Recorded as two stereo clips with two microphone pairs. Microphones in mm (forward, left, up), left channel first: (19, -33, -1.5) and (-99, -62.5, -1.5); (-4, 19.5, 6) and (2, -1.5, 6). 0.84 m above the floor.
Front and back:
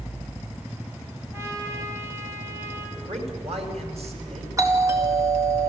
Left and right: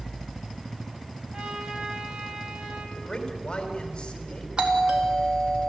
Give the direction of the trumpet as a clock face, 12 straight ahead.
3 o'clock.